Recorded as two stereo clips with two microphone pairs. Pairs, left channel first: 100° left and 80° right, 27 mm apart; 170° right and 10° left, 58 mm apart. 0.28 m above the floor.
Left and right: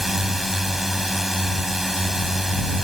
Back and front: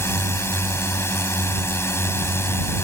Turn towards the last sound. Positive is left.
turn(degrees=-160)